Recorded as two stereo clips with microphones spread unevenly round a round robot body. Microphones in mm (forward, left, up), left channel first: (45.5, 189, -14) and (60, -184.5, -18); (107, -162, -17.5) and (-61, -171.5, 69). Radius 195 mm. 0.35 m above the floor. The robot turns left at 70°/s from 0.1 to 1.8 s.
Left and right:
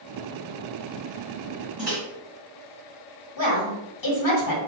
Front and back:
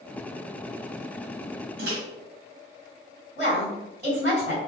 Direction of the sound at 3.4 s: 85° left.